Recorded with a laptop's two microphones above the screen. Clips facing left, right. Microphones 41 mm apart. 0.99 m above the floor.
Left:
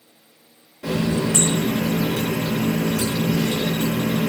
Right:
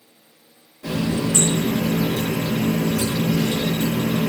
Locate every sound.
0.8 s a running tap: 65° left (ahead or behind), 0.7 m